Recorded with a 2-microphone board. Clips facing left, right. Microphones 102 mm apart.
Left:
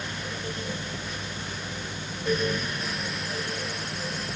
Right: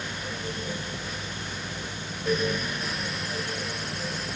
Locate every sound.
Only background noise.